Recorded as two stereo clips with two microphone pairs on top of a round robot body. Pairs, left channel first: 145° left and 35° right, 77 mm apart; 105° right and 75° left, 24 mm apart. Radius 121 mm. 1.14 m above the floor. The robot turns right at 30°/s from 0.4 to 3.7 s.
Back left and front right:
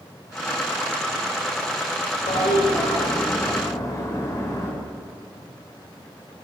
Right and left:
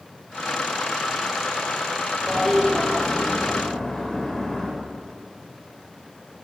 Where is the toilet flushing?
155° left, 5 m; by 4.7 s 160° right, 5 m.